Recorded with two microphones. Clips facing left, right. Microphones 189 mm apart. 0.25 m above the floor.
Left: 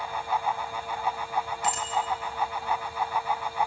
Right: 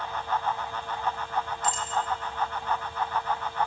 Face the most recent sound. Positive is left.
turn(degrees=70)  # may be behind; listen again after turning